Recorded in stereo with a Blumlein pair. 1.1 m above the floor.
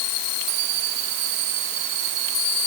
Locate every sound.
Only background noise.